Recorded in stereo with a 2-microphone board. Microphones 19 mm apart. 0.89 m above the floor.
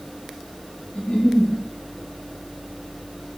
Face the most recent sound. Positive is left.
turn(degrees=75)  # may be behind; listen again after turning